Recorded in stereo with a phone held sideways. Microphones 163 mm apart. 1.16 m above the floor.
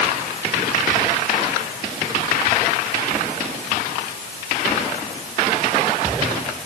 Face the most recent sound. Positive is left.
No sound to turn to.